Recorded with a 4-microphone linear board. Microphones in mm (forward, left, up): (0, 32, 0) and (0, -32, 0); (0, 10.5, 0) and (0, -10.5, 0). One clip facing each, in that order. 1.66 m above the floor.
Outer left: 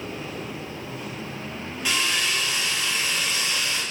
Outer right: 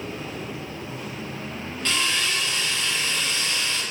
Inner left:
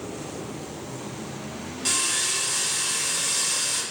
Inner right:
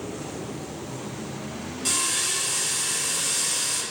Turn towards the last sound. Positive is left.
turn(degrees=10)  # may be behind; listen again after turning